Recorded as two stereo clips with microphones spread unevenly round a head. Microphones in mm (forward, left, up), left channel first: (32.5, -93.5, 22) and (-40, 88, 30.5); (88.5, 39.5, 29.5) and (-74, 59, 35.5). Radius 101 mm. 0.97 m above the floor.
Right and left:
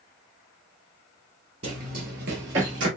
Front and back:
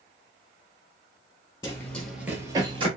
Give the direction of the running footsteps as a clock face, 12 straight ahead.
10 o'clock.